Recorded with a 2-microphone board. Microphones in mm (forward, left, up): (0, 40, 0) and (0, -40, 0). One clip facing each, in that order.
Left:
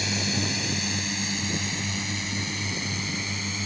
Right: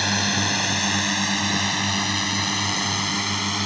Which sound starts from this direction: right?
A drone, at 0.0 s.